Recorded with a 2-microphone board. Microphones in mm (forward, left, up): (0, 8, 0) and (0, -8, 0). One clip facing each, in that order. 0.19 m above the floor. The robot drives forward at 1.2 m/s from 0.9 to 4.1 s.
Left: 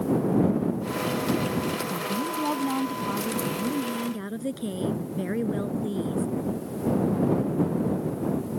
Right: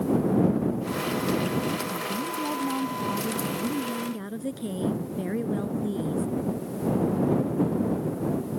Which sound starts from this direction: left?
A woman speaking, at 1.9 s.